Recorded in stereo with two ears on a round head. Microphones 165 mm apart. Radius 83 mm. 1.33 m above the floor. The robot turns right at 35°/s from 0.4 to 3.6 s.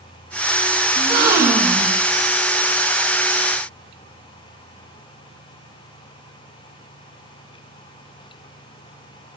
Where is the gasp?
30° right, 1.6 m; by 2.0 s 5° left, 1.6 m.